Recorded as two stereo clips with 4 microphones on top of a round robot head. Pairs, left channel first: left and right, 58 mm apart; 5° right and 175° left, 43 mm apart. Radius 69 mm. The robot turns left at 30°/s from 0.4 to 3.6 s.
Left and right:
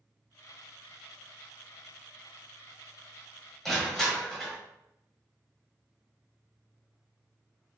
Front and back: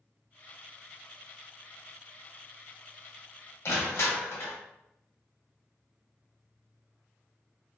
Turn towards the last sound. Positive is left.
turn(degrees=5)